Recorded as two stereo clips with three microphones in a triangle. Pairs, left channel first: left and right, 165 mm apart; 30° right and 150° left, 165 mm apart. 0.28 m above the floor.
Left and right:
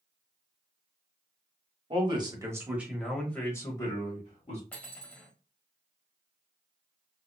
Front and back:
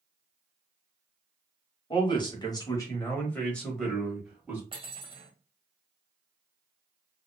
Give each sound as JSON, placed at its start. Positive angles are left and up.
{"t": 1.9, "sound": "a man speaking", "azimuth_deg": -65, "distance_m": 1.1}
{"t": 4.7, "sound": "cutlery clinking", "azimuth_deg": 165, "distance_m": 0.8}